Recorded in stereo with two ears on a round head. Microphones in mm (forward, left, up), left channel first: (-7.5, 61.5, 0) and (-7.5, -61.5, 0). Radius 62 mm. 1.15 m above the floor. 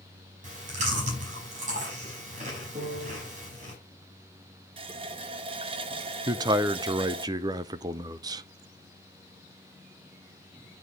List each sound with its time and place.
0.4 s chewing: 60° right (ahead or behind), 4 m
2.8 s a piano: 40° right (ahead or behind), 4 m
4.8 s a running tap: 40° right (ahead or behind), 0.7 m
6.3 s a man speaking: 30° right (ahead or behind), 0.5 m